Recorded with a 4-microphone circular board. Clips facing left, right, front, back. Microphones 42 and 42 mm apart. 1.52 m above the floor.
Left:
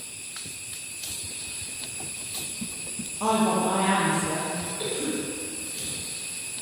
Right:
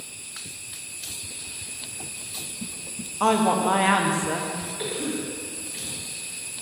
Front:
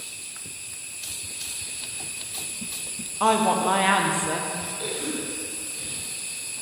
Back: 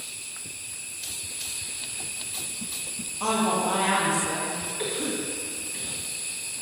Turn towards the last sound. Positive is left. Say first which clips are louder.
# right 1 dB, back 3 dB
turn(degrees=-150)